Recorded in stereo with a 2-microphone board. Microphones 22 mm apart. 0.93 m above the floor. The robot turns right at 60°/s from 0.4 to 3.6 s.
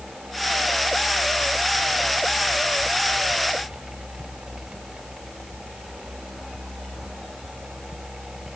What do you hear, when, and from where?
Only background noise.